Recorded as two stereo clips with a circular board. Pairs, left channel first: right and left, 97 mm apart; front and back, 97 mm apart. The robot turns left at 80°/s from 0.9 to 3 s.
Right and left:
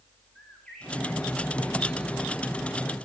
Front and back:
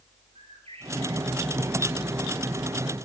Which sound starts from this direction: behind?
A bird, at 0.3 s.